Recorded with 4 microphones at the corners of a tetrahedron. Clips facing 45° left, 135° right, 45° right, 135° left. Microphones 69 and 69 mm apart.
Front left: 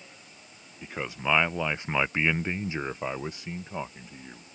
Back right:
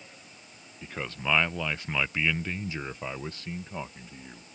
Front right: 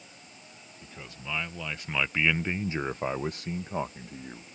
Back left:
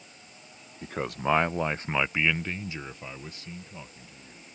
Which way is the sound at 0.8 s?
125° left.